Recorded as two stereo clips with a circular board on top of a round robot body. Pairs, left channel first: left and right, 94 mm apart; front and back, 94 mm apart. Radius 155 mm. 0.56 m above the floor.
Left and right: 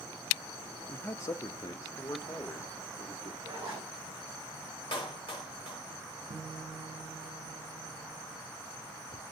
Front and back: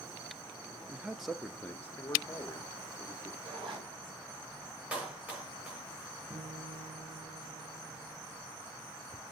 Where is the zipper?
155° right, 7.5 m.